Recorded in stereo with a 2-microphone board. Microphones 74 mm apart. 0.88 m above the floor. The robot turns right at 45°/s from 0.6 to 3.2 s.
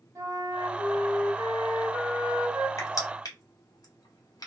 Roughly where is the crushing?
Left.